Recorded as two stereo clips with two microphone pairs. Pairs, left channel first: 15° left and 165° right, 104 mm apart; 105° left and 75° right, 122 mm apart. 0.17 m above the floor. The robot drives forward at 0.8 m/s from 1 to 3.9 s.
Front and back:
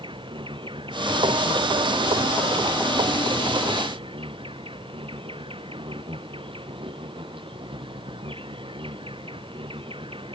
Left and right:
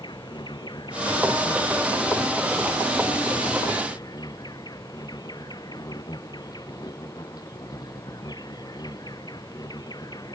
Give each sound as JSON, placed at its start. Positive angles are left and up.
{"t": 0.0, "sound": "an insect", "azimuth_deg": 160}